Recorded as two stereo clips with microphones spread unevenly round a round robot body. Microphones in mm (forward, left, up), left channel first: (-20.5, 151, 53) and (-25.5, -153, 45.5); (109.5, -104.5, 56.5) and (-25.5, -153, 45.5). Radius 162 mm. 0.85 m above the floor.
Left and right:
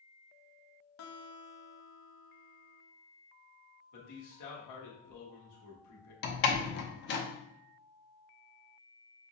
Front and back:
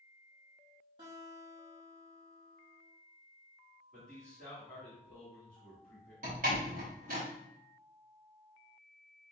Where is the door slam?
145° left, 0.6 m.